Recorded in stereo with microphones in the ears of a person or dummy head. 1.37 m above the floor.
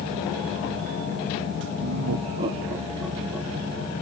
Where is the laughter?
75° right (ahead or behind), 0.7 m; by 3.9 s 5° left (ahead or behind), 3 m.